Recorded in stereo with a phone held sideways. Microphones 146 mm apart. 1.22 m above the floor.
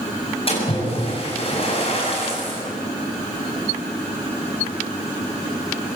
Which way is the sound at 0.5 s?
40° left (ahead or behind).